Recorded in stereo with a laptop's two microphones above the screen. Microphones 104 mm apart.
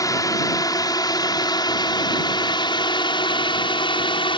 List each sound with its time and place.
0.0 s a drone: 35° left (ahead or behind); by 4.4 s 55° left (ahead or behind)